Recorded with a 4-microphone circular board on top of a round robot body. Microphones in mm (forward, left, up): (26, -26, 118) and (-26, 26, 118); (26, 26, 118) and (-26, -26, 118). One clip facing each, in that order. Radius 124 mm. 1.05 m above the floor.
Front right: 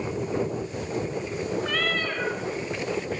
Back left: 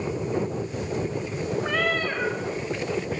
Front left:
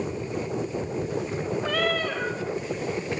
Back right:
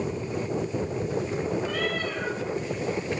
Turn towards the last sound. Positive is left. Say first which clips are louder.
# back left 2 dB, front left 3 dB
turn(degrees=60)